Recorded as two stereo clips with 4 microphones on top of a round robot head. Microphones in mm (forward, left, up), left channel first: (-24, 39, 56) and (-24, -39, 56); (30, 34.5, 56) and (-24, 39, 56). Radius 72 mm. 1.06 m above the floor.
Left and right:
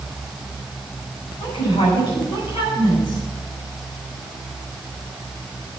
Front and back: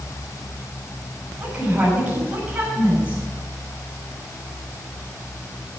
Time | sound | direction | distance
1.4 | a woman speaking | 110° left | 7 m